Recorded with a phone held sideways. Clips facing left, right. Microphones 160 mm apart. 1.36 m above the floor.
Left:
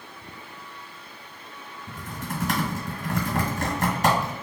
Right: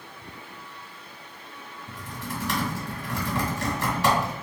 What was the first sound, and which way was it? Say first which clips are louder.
Typing on a keyboard: left 2 dB; 45° left (ahead or behind).